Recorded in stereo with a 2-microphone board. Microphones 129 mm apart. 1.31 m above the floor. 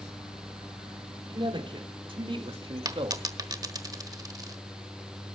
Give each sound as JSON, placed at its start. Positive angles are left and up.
{"t": 1.3, "sound": "a man speaking", "side_deg": -40, "distance_m": 3.5}
{"t": 2.9, "sound": "a dropped coin", "side_deg": -30, "distance_m": 1.2}